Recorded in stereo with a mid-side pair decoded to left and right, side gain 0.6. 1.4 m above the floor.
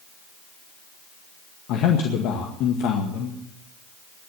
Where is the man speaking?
70° left, 2.0 m.